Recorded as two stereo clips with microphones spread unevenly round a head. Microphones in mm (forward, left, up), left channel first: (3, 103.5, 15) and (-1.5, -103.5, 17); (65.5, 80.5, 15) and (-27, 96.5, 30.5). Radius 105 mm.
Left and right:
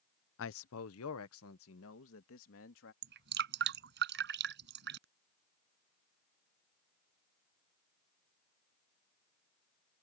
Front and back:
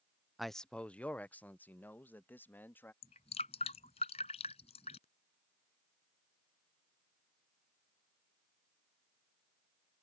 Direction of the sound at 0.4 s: 90° left.